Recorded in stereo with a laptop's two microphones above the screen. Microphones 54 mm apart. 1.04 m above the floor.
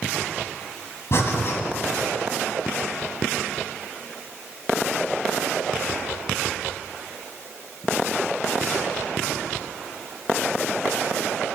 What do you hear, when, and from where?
1.1 s breathing: 60° left (ahead or behind), 1.8 m